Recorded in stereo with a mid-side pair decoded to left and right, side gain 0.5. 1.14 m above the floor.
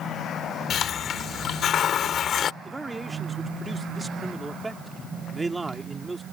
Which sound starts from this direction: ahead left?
A hiss, at 0.7 s.